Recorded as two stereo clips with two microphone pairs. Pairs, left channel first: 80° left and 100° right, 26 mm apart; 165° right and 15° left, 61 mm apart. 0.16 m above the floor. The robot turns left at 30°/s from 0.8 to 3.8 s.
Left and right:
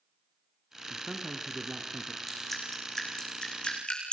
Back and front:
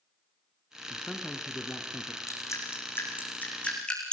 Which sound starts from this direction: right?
A man speaking, at 0.9 s.